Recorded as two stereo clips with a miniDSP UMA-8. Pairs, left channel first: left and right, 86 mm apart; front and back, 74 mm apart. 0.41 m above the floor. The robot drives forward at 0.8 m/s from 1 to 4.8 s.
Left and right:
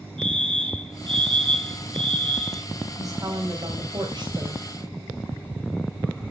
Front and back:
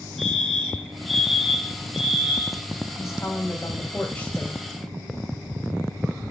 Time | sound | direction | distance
0.2 | a fire alarm | 90° right | 6.5 m
3.0 | a woman speaking | 45° right | 2 m